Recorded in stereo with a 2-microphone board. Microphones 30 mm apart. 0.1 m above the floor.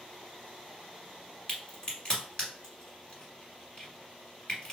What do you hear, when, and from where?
1.5 s a crack: 25° left (ahead or behind), 2.0 m